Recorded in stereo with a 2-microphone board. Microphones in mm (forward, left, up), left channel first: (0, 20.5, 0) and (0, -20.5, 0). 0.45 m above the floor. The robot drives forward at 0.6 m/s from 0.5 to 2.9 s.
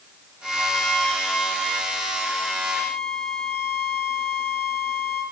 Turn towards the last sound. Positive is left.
turn(degrees=20)  # may be behind; listen again after turning